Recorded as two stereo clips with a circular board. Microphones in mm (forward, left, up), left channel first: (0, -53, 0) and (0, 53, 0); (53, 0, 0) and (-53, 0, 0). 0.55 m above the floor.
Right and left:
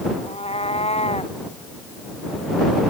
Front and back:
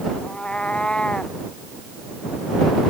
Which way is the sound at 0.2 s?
80° right.